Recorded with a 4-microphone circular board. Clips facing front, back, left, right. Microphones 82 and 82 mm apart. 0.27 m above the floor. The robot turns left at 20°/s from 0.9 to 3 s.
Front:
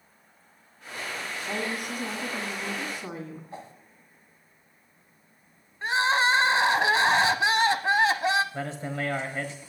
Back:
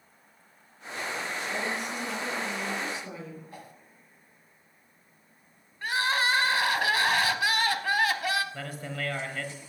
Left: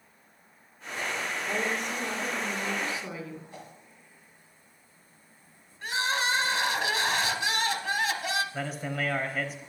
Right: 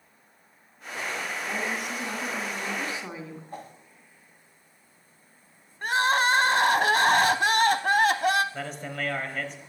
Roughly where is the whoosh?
Ahead right.